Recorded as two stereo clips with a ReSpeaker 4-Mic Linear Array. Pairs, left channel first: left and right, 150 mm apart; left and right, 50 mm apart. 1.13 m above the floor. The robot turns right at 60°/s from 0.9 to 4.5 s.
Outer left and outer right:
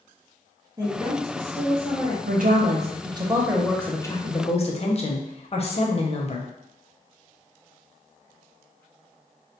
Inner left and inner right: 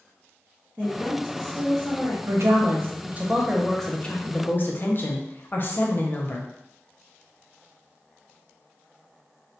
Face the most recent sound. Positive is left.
turn(degrees=50)